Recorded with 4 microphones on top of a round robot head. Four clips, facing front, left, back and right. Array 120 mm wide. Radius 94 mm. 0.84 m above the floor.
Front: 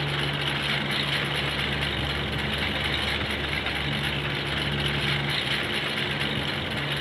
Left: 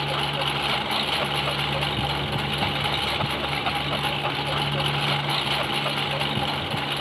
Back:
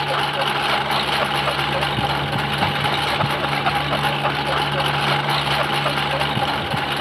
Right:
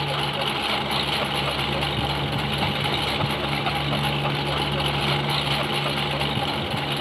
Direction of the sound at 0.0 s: 175° right.